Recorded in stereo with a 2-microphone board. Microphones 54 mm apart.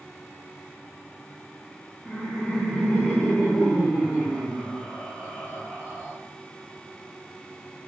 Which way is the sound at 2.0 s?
5° left (ahead or behind).